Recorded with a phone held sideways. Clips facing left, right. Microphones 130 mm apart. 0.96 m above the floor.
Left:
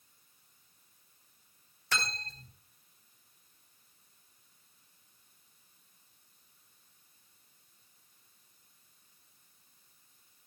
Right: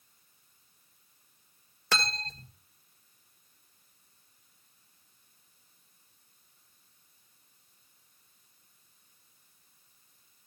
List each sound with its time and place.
1.9 s cutlery clinking: 75° right (ahead or behind), 1.3 m